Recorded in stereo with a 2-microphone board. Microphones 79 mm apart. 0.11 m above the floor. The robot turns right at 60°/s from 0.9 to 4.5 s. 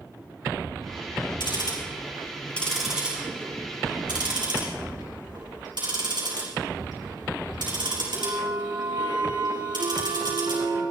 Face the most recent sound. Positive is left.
turn(degrees=-75)  # may be behind; listen again after turning